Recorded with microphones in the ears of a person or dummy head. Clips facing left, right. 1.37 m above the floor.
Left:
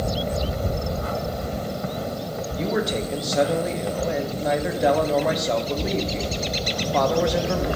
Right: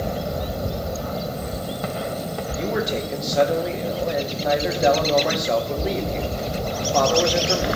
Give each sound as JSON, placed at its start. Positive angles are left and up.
{"t": 2.5, "sound": "a man speaking", "side_deg": 0, "distance_m": 1.5}